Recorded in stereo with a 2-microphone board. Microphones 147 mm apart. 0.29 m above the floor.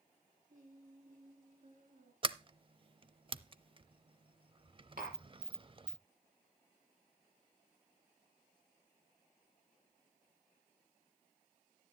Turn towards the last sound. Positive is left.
turn(degrees=-75)  # may be behind; listen again after turning